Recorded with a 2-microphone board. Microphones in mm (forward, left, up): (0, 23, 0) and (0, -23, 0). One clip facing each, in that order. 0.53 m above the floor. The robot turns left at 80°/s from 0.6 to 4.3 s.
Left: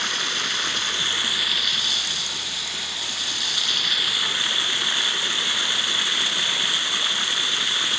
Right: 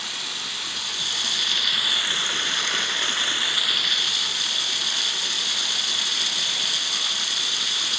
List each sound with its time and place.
0.0 s running water: 80° left, 0.9 m; by 8.0 s 145° left, 0.9 m